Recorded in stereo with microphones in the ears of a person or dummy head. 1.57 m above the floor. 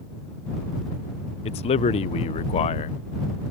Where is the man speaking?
35° left (ahead or behind).